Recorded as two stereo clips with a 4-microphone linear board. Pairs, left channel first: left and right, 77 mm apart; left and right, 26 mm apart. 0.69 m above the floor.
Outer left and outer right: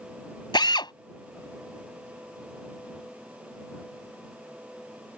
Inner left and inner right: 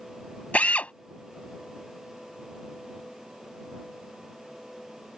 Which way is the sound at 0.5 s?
80° left.